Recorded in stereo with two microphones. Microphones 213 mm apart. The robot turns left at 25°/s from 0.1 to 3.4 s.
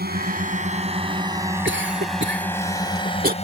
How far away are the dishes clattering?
No dishes clattering in this recording.